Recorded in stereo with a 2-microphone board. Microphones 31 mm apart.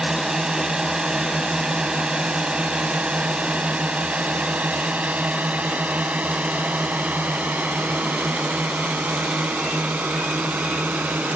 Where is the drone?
20° right (ahead or behind); by 11.4 s 75° right (ahead or behind).